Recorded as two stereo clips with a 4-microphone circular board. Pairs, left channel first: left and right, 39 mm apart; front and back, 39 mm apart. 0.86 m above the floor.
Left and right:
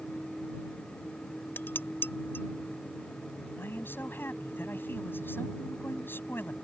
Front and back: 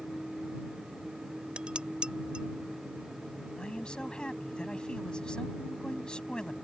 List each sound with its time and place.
1.6 s dishes clattering: 115° left
3.6 s a man speaking: 70° left